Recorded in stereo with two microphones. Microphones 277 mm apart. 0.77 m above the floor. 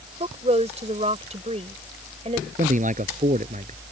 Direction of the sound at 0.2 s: 20° right (ahead or behind).